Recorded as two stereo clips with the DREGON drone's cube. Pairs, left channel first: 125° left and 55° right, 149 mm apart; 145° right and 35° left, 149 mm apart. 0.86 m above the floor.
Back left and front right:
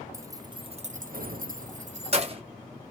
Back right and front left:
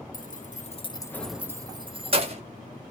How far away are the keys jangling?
About 0.8 m.